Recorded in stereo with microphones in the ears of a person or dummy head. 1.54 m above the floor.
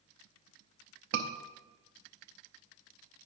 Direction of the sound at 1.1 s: 75° right (ahead or behind).